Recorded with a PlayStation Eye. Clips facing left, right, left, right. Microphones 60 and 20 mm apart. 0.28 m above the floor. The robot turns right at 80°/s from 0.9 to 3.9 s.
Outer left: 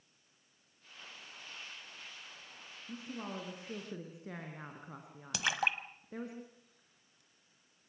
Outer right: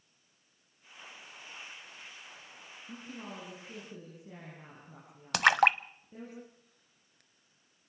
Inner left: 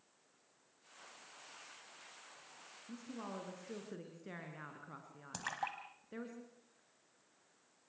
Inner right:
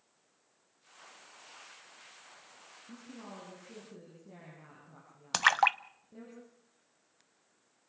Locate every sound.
2.9 s a woman speaking: straight ahead, 4.5 m; by 6.3 s 80° left, 4.5 m
5.3 s a splash: 60° right (ahead or behind), 0.7 m